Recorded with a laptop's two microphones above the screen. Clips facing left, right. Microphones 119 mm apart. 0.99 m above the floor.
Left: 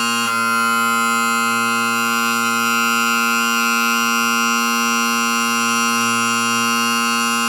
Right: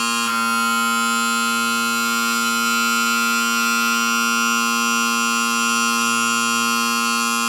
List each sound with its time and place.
0.0 s a machine running: 50° left (ahead or behind), 1.3 m